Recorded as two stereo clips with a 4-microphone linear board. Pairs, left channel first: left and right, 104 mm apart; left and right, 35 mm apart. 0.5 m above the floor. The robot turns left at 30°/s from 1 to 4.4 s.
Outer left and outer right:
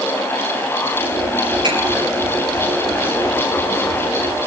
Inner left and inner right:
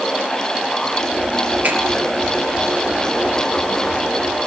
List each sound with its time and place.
1.6 s a finger snap: 55° right (ahead or behind), 9 m